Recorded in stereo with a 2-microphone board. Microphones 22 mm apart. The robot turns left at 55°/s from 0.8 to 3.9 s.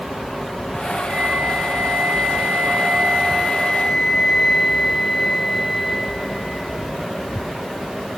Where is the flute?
45° right, 8.5 m; by 6.9 s 160° left, 8.5 m.